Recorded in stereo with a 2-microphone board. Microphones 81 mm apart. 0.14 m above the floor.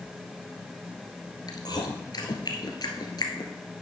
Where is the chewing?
60° left (ahead or behind), 1.6 m.